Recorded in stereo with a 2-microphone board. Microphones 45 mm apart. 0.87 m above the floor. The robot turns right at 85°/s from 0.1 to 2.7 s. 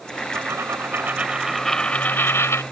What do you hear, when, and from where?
0.3 s a dropped coin: 105° right; by 2.6 s 90° left